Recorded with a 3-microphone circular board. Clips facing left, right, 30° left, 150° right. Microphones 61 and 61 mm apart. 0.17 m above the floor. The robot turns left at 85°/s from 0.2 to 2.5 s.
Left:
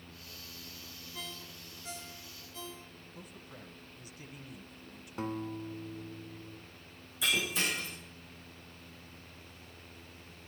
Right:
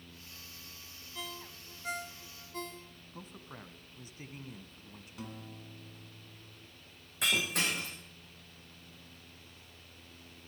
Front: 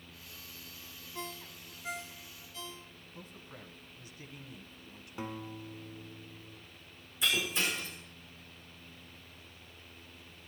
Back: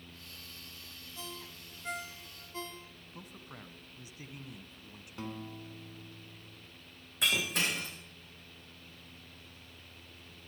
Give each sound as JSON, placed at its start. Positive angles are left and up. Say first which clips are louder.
{"t": 1.1, "sound": "a ringtone", "louder": "right 2 dB, front 3 dB", "azimuth_deg": 5, "distance_m": 1.1}
{"t": 3.1, "sound": "a man speaking", "louder": "right 3 dB, back 1 dB", "azimuth_deg": -95, "distance_m": 1.3}
{"t": 5.2, "sound": "a guitar", "louder": "left 10 dB, front 1 dB", "azimuth_deg": 95, "distance_m": 1.2}
{"t": 7.2, "sound": "breaking glass", "louder": "even, even", "azimuth_deg": -120, "distance_m": 9.5}